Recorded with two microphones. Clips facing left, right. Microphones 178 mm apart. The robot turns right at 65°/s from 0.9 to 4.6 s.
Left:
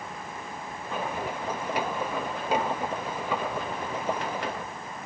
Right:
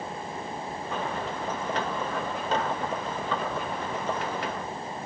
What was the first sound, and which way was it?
Only background noise.